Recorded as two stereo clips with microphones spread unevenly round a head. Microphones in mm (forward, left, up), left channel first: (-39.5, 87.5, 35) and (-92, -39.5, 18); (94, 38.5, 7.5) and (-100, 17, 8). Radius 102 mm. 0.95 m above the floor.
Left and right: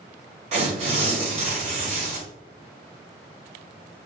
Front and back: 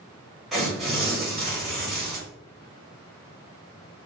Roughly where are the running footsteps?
No running footsteps in this recording.